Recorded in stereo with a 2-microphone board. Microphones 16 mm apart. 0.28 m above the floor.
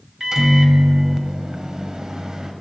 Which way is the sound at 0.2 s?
35° right (ahead or behind).